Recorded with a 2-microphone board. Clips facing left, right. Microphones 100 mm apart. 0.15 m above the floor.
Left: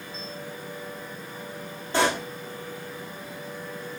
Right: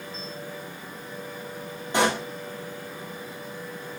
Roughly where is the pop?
Centre.